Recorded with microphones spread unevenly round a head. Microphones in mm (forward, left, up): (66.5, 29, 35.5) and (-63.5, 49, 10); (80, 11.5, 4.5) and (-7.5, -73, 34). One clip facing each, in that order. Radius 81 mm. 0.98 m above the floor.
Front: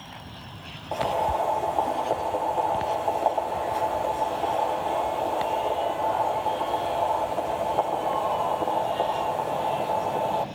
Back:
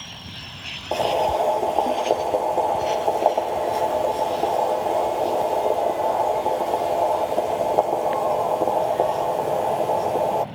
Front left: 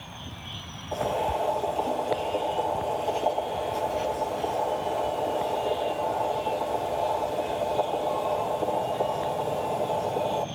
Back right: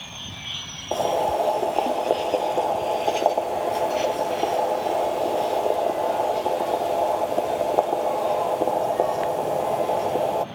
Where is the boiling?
160° right, 1.5 m.